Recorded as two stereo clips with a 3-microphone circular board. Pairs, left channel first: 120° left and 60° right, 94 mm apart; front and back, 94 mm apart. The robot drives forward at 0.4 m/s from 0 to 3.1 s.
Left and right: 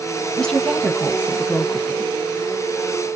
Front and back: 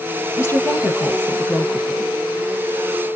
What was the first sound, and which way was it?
A woman speaking, 40° left.